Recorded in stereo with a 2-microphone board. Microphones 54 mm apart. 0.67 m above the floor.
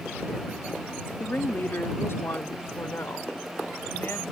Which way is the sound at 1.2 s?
35° left (ahead or behind).